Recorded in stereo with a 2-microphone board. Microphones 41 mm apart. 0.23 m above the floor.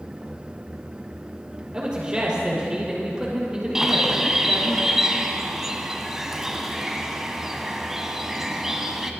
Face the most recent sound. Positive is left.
turn(degrees=-10)  # may be behind; listen again after turning